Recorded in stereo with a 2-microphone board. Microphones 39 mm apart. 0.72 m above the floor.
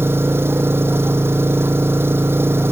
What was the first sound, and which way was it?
An engine running, 80° right.